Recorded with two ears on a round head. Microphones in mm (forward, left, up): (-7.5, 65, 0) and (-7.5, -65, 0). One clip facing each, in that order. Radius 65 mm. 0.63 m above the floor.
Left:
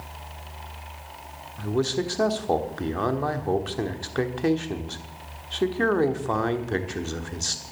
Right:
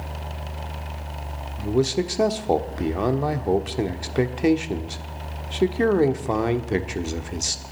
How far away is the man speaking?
About 1.2 m.